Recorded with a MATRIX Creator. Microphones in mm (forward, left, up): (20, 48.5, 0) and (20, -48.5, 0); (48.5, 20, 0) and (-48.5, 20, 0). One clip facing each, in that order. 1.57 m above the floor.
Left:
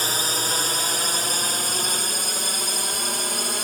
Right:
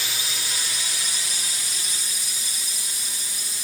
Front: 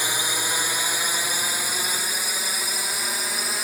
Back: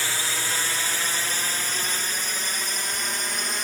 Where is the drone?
70° left; by 3.6 s 85° left.